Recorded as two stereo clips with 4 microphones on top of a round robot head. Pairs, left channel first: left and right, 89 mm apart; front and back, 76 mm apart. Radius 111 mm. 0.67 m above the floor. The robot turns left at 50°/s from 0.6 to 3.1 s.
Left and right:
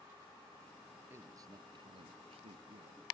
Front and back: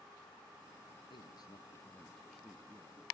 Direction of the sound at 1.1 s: 25° right.